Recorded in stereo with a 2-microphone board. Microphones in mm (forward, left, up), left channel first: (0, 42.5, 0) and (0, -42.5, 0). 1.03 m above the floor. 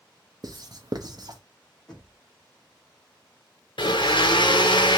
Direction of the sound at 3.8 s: 70° left (ahead or behind).